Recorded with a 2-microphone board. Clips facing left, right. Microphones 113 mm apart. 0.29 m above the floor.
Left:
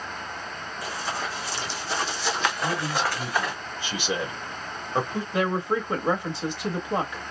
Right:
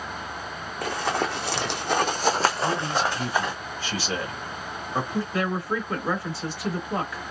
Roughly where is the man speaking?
Centre.